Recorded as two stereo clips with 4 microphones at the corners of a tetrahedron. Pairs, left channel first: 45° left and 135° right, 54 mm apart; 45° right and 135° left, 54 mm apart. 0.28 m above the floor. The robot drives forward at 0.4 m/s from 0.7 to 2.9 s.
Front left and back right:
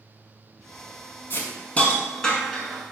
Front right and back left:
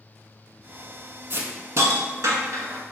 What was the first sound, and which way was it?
A hiss, 90° left.